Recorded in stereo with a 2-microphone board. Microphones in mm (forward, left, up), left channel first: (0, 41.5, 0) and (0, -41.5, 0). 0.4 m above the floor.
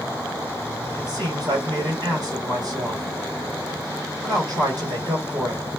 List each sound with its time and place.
1.0 s a man speaking: 55° right (ahead or behind), 2.5 m